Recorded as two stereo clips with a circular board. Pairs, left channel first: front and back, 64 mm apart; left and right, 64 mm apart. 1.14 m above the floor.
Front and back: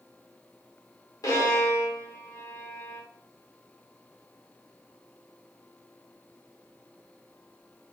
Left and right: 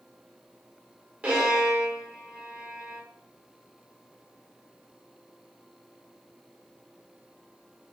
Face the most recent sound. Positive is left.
turn(degrees=-20)